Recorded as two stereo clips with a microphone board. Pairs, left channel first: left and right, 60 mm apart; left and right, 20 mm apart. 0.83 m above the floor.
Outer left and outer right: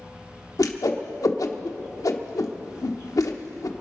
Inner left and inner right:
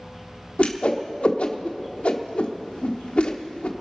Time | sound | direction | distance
0.6 | a whoosh | 70° left (ahead or behind) | 0.8 m